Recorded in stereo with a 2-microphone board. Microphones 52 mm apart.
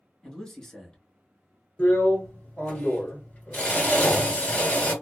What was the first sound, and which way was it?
A man speaking, 15° left (ahead or behind).